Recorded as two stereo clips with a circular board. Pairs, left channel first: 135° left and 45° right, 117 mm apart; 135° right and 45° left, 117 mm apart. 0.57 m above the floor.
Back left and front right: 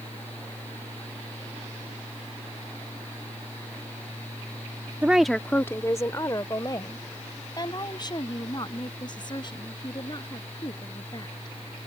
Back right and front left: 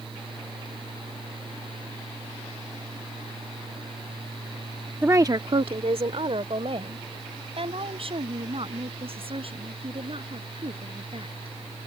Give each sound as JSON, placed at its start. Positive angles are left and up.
{"t": 5.0, "sound": "a woman speaking", "azimuth_deg": 0}